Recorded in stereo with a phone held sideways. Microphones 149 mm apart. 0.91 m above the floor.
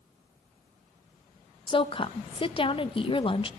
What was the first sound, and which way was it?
A woman speaking, 35° left (ahead or behind).